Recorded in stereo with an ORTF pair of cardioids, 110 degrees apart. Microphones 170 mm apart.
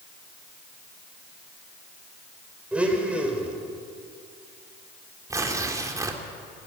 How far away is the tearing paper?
About 2.5 m.